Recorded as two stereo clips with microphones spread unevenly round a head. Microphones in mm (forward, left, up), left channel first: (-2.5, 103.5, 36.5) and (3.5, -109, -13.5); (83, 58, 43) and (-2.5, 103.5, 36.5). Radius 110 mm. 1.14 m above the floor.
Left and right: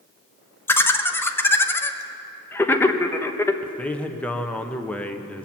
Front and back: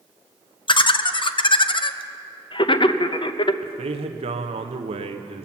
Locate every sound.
0.7 s laughter: 10° left, 0.8 m
3.6 s a man speaking: straight behind, 0.8 m